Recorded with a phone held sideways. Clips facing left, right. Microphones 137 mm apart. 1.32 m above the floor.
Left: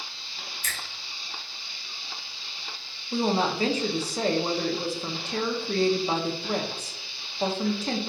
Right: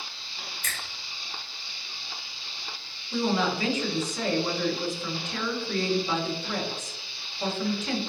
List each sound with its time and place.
0.6 s a finger snap: 60° right (ahead or behind), 1.1 m
3.1 s a woman speaking: 35° left (ahead or behind), 0.5 m